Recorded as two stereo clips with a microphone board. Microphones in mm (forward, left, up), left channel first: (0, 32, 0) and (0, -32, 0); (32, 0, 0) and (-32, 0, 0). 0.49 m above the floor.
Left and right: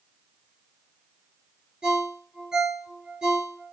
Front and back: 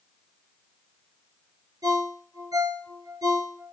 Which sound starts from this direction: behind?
A ringtone, at 1.8 s.